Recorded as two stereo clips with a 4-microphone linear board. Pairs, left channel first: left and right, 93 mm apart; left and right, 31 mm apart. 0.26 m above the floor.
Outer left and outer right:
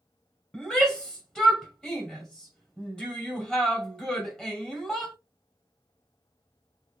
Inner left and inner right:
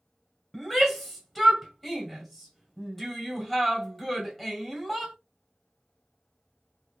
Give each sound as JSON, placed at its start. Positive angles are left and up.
{"t": 0.5, "sound": "a shout", "side_deg": 10, "distance_m": 1.5}